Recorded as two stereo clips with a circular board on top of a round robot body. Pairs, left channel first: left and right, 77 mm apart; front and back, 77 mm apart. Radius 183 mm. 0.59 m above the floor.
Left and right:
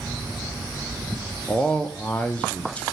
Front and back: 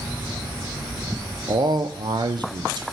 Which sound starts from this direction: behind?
A man speaking, at 1.5 s.